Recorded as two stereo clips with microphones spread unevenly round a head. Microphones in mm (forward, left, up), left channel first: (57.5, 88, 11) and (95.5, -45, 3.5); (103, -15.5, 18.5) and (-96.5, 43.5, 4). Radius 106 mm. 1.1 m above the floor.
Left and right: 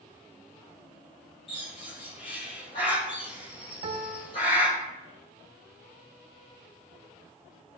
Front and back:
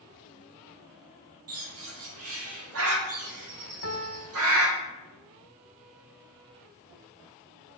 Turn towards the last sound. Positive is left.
turn(degrees=-65)